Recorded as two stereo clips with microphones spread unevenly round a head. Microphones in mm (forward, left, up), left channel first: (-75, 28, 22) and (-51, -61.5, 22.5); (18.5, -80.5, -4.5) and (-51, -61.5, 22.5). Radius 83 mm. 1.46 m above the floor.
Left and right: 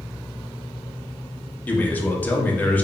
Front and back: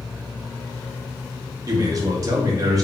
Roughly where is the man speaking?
Behind.